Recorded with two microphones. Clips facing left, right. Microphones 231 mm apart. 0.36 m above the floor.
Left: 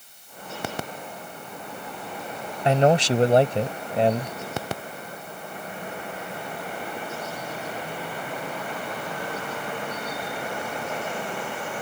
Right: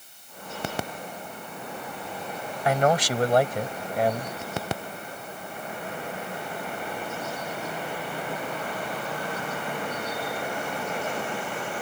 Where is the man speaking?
25° left (ahead or behind).